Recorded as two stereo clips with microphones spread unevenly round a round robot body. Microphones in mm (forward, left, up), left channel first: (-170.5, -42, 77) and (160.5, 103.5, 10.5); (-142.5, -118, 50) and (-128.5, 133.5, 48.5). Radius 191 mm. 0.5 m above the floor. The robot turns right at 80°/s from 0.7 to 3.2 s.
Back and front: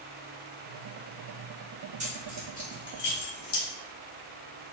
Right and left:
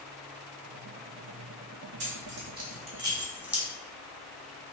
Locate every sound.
2.0 s keys jangling: 75° left, 0.9 m; by 3.6 s 170° left, 0.9 m